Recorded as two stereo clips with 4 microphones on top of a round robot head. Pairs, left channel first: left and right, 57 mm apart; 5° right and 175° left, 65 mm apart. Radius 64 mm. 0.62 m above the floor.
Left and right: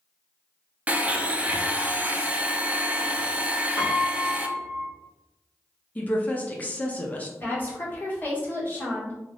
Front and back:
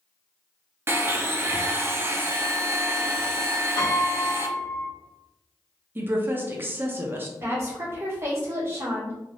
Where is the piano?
20° right, 1.0 m.